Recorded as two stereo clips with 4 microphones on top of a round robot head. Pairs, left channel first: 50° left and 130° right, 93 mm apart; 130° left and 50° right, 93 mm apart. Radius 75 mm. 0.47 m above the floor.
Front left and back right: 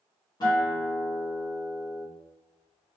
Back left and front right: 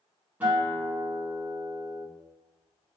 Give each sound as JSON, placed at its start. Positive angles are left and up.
{"t": 0.4, "sound": "a guitar", "azimuth_deg": 20, "distance_m": 1.8}